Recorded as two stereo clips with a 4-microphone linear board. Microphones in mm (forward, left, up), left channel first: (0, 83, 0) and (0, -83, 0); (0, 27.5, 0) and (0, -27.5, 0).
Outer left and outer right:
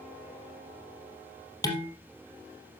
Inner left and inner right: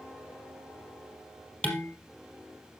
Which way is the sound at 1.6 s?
20° left (ahead or behind).